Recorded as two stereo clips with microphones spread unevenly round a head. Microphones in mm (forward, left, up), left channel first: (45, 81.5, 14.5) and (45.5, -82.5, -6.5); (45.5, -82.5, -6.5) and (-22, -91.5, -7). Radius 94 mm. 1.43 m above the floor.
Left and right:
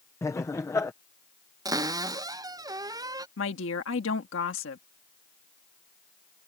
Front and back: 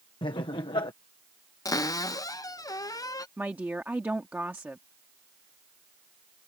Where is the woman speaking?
105° left.